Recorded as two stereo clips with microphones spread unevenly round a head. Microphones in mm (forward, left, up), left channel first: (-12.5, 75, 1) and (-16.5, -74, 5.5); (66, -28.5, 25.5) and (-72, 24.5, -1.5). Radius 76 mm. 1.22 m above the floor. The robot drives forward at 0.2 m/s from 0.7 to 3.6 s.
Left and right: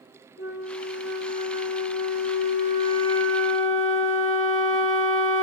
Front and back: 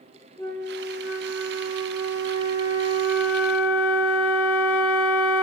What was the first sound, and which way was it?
A flute, 65° left.